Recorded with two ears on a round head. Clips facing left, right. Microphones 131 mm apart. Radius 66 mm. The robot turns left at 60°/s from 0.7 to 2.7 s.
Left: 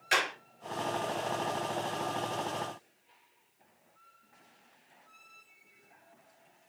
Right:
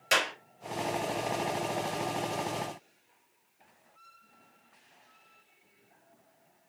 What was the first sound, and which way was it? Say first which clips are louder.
A clap: right 2 dB; 50° right (ahead or behind).